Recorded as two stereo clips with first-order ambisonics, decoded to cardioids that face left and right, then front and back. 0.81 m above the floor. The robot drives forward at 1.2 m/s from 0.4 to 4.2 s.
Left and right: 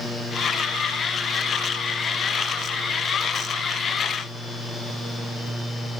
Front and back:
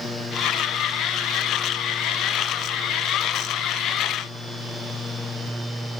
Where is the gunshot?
I don't hear a gunshot.